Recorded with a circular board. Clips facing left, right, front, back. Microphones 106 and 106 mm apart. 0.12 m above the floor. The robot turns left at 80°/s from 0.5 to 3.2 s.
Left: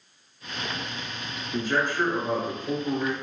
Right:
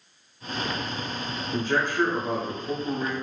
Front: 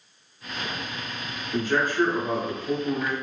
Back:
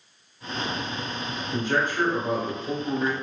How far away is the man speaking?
About 1.4 m.